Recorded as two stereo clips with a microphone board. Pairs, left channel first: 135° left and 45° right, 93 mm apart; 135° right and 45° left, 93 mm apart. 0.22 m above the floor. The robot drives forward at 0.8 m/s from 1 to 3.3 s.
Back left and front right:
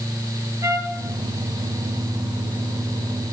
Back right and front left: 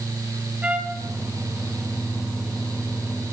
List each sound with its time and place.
0.6 s a trumpet: 20° right, 1.0 m